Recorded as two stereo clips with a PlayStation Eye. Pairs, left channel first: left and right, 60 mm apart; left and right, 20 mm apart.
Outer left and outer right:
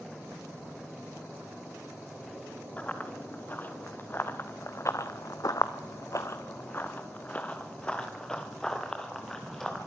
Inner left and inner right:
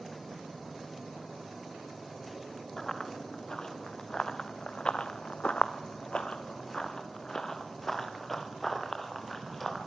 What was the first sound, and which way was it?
Running footsteps, 25° left (ahead or behind).